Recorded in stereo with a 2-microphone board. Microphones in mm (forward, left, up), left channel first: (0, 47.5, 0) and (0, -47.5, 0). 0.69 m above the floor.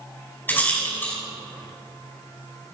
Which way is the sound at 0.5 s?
20° left (ahead or behind).